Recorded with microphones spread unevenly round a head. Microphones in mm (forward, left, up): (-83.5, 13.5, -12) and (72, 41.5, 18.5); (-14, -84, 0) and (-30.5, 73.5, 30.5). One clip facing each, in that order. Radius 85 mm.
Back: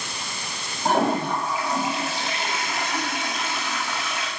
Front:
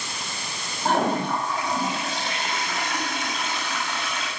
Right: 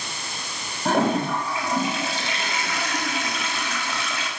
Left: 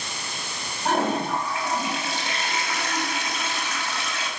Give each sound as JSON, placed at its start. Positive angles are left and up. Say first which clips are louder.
{"t": 0.8, "sound": "a toilet flushing", "louder": "back 1 dB, right 3 dB", "azimuth_deg": -85, "distance_m": 7.5}